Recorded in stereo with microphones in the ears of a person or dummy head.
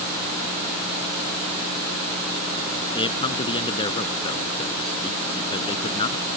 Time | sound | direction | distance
3.0 | a man speaking | 35° left (ahead or behind) | ?